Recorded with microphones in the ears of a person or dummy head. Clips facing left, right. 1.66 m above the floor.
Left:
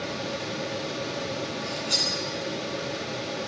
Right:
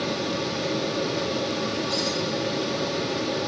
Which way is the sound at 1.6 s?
30° left (ahead or behind).